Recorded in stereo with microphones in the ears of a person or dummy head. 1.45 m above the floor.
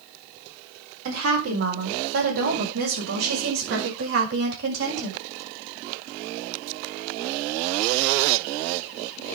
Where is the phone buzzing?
No phone buzzing in this recording.